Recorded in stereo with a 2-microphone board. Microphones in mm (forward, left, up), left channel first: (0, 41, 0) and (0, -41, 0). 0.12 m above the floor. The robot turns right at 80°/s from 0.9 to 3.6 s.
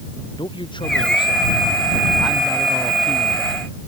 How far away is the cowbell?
No cowbell in this recording.